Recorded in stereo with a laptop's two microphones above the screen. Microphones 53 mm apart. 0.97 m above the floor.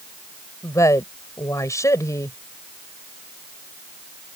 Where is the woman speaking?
75° left (ahead or behind).